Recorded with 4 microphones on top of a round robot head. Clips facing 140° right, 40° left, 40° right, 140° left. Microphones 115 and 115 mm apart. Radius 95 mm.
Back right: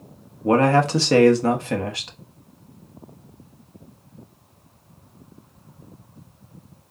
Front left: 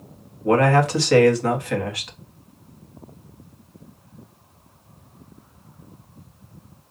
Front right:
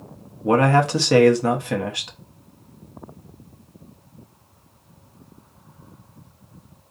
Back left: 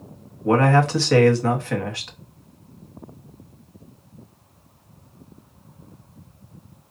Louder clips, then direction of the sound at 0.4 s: Even, even; 105° right.